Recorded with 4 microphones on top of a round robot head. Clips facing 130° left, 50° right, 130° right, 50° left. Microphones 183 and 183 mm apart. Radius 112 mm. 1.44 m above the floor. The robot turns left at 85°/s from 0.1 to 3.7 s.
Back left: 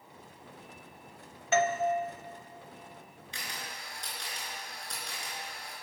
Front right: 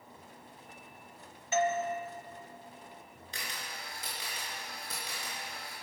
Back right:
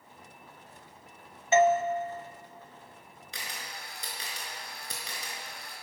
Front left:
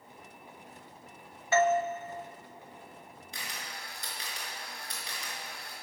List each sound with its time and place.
1.5 s a doorbell: 160° left, 0.6 m; by 1.8 s 130° left, 0.6 m
3.3 s a camera shutter: 100° right, 4.5 m; by 5.7 s 135° right, 4.5 m